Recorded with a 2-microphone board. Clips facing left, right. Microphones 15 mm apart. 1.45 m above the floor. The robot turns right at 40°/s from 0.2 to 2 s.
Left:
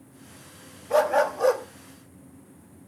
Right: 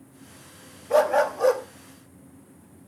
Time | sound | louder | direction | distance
0.9 | a dog barking | right 1 dB | 25° right (ahead or behind) | 1.1 m